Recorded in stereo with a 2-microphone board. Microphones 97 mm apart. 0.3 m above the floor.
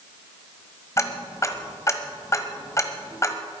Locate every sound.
1.0 s ticking: 30° left (ahead or behind), 1.3 m